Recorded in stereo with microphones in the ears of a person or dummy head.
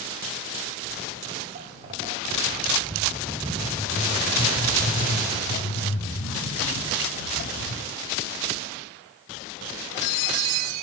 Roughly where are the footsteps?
Right.